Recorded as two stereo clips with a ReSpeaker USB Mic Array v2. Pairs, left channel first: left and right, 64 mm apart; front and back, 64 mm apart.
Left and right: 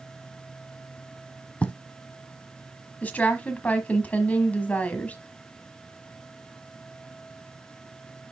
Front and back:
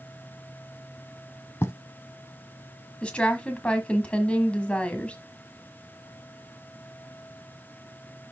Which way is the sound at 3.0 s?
50° left.